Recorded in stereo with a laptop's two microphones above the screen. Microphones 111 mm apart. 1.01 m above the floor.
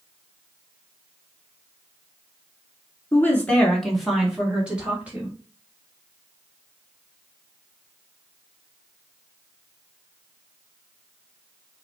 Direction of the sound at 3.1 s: 25° left (ahead or behind).